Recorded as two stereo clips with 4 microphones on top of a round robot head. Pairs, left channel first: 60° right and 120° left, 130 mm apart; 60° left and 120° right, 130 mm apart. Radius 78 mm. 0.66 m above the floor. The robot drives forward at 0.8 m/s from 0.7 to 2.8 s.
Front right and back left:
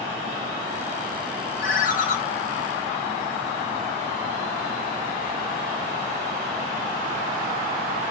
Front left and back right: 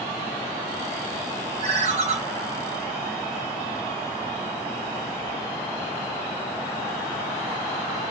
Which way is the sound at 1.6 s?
75° right.